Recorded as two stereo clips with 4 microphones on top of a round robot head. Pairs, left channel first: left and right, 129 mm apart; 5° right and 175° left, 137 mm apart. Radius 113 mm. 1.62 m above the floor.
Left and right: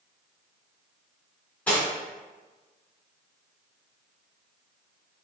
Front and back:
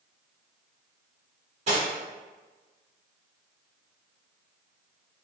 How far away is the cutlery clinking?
About 0.9 m.